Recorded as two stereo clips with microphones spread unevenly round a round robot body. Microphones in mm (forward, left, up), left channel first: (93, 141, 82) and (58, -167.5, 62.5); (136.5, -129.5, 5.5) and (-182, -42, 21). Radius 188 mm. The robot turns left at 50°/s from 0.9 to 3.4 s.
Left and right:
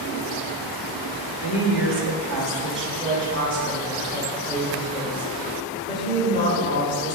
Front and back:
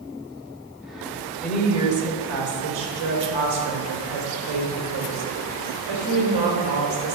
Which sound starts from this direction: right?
A woman speaking, at 1.4 s.